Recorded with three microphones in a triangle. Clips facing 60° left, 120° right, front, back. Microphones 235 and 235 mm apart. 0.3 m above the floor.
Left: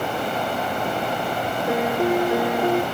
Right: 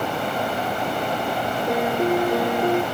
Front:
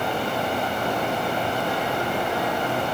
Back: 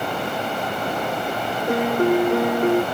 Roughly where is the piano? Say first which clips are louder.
Even, back 8 dB; behind left.